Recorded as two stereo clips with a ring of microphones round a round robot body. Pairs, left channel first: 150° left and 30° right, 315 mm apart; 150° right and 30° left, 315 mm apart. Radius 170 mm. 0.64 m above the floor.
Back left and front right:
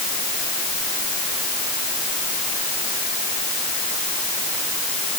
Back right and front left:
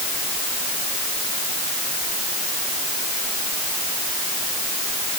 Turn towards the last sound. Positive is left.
No sound to turn to.